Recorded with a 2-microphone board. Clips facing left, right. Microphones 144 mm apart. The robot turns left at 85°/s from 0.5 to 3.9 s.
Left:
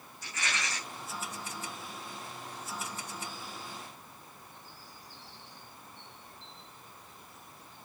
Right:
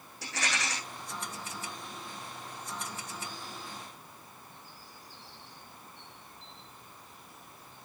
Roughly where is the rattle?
Right.